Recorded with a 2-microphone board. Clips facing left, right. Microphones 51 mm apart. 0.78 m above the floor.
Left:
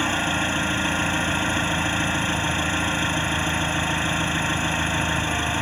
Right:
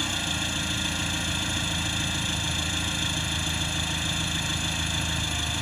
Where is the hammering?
I don't hear hammering.